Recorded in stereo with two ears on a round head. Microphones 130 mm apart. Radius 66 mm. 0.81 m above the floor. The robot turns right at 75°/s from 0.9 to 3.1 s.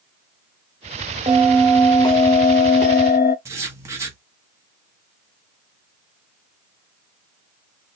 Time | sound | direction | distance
1.3 | a bell | 30° right | 0.7 m
3.5 | writing | 20° right (ahead or behind) | 1.1 m